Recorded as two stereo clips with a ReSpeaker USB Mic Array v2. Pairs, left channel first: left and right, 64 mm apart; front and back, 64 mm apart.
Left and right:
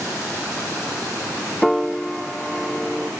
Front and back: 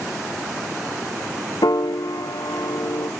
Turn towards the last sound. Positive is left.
turn(degrees=0)